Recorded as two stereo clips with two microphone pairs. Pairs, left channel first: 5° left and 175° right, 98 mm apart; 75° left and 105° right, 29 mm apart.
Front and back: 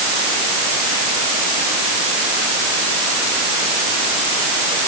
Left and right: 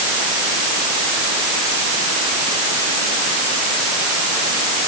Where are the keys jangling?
No keys jangling in this recording.